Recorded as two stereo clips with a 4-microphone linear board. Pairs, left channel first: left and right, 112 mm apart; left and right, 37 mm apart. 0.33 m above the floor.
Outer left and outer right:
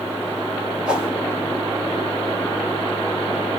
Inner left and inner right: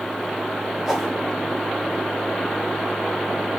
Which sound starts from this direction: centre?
A whoosh, at 0.9 s.